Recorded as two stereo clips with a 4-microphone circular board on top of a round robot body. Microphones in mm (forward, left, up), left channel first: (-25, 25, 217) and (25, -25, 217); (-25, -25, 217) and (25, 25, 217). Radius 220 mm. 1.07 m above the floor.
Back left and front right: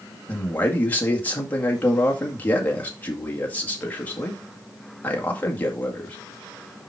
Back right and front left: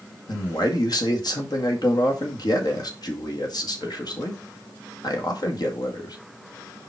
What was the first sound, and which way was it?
A man speaking, 160° right.